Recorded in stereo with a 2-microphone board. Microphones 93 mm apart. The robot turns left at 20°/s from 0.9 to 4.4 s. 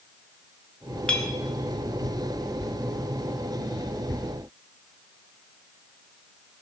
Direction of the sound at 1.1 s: 10° left (ahead or behind).